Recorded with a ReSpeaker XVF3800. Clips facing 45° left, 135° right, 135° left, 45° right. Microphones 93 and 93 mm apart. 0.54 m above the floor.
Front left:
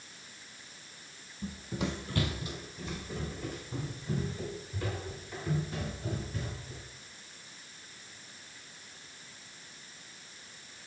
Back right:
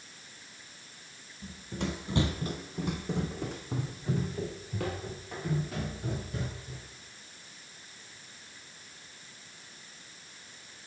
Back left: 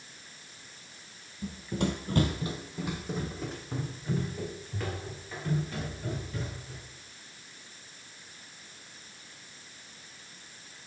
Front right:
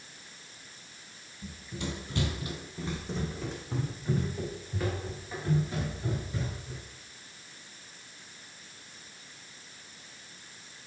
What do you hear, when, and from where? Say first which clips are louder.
1.4 s running footsteps: front left 1 dB, back left 7 dB; 105° left, 1.1 m; by 6.8 s 125° right, 5.5 m